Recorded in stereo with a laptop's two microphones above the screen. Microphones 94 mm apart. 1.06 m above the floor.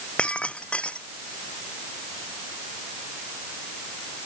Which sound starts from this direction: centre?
Breaking glass, at 0.2 s.